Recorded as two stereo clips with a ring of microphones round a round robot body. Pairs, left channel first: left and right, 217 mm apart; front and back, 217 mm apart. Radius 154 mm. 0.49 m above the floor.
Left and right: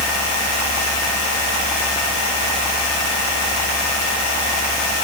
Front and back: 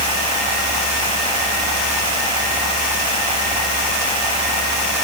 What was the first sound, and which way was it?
Only background noise.